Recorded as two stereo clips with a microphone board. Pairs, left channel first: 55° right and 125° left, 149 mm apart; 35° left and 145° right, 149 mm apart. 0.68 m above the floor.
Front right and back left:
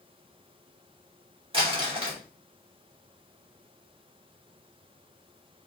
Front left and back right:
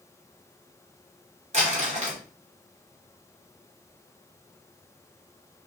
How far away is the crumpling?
About 2.5 m.